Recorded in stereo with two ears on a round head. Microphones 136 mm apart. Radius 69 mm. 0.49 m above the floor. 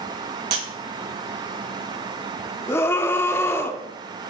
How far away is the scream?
About 0.8 m.